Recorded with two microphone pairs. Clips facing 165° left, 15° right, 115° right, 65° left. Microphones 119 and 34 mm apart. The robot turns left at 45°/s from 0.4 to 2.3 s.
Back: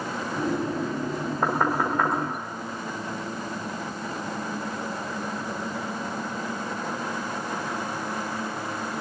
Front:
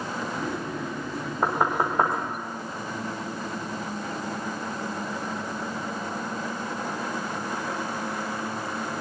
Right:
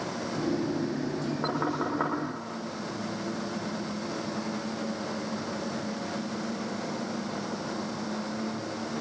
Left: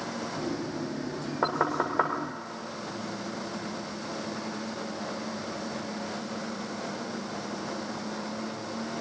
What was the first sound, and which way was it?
Knocking, 70° left.